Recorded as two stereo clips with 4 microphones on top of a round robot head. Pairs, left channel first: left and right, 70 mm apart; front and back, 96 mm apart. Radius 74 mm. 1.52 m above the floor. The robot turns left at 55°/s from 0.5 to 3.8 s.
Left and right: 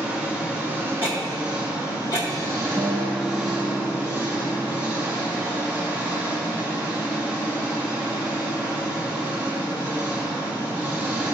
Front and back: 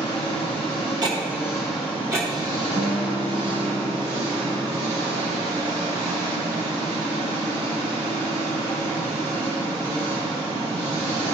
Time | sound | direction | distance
0.0 | an engine running | 25° right | 1.5 m
1.0 | ticking | 150° right | 0.8 m
2.8 | a guitar | 165° right | 1.1 m